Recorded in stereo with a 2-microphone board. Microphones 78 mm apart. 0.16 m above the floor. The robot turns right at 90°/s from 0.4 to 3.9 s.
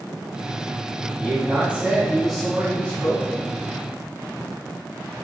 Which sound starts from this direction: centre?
A man speaking, at 1.2 s.